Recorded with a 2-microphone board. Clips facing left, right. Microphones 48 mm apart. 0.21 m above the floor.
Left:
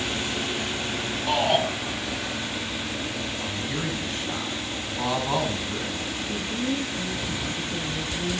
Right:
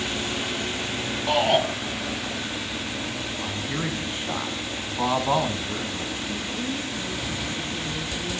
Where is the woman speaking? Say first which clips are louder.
Left 1 dB; 40° left (ahead or behind), 4.5 m.